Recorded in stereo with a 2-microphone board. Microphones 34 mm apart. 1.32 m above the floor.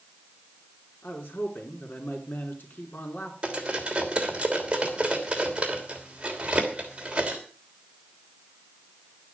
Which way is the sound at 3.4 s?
30° right (ahead or behind).